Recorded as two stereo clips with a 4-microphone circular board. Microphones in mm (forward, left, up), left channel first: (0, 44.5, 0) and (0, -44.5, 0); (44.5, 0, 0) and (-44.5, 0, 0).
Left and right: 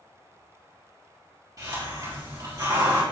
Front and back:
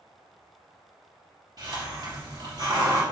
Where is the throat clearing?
No throat clearing in this recording.